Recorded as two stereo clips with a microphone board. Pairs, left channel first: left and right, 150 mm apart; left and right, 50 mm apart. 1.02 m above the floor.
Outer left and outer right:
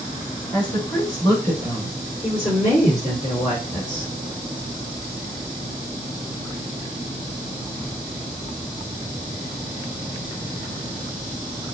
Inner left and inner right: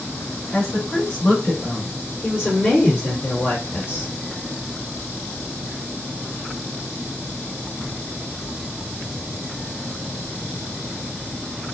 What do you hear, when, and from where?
0.5 s a woman speaking: 30° left (ahead or behind), 3.5 m; by 4.1 s 70° left (ahead or behind), 1.4 m